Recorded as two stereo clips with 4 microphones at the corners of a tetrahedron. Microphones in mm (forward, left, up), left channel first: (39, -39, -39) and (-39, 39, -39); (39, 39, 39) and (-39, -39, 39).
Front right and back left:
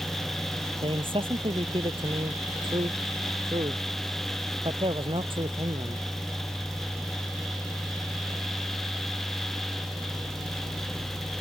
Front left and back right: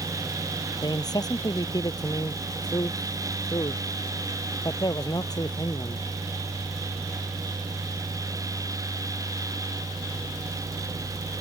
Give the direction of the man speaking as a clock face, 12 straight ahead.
9 o'clock.